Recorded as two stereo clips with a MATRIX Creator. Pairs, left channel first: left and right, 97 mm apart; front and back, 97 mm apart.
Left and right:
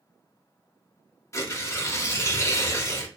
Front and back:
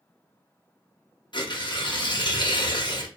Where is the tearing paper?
30° left, 0.6 m.